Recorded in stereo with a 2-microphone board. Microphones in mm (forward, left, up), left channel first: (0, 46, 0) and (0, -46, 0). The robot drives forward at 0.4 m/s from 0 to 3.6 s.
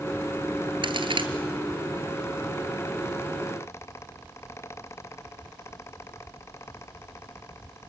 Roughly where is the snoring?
I don't hear snoring.